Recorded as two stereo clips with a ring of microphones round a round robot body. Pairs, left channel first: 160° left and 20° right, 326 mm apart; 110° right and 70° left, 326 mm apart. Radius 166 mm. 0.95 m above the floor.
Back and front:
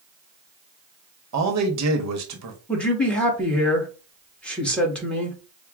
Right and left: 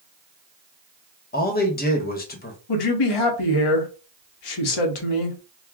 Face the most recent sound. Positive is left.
turn(degrees=-115)